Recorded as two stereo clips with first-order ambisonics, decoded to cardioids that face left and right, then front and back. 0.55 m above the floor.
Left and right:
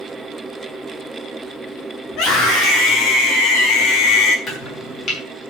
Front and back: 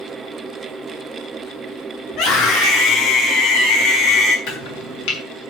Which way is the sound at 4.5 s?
35° left.